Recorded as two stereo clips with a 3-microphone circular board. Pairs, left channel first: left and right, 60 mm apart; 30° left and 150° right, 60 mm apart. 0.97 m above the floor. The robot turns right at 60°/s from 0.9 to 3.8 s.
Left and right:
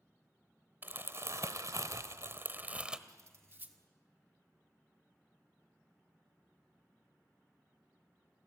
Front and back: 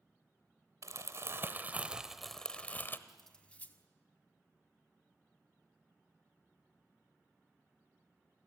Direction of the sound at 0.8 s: 140° right.